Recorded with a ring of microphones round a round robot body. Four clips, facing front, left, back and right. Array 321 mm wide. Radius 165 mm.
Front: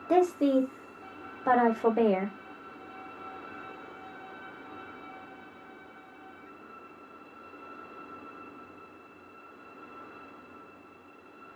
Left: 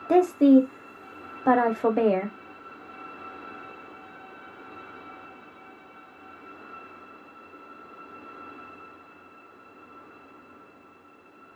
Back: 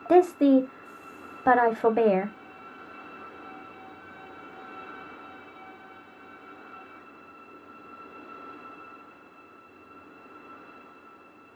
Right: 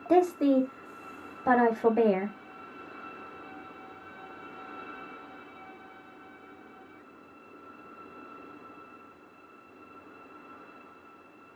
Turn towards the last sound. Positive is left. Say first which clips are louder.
# left 6 dB, back 5 dB
turn(degrees=160)